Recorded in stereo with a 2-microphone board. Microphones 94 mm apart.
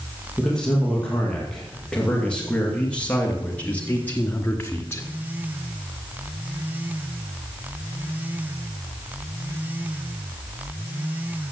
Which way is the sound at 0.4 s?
10° left (ahead or behind).